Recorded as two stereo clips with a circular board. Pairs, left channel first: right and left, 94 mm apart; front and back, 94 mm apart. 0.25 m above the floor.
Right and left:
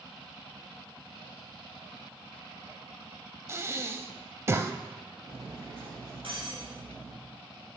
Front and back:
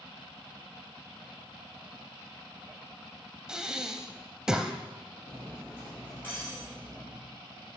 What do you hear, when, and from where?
3.5 s breathing: 105° left, 0.6 m
5.3 s cutlery clinking: 70° left, 4 m